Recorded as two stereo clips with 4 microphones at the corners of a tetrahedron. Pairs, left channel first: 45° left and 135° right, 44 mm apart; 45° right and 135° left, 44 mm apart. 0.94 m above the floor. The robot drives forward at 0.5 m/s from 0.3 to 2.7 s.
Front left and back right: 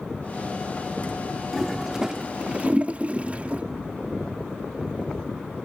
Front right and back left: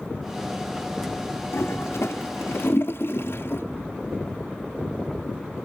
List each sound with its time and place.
1.5 s a toilet flushing: 50° right, 1.3 m; by 3.6 s 75° right, 1.0 m